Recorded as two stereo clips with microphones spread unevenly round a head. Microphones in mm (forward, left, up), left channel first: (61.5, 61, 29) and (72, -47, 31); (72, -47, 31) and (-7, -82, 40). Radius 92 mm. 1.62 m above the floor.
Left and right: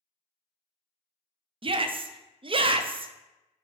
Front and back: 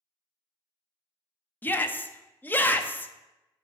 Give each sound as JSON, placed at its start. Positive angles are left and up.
{"t": 1.6, "sound": "a shout", "azimuth_deg": -45, "distance_m": 0.8}